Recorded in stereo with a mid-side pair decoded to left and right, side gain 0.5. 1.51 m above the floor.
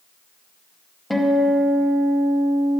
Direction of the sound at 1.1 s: 5° left.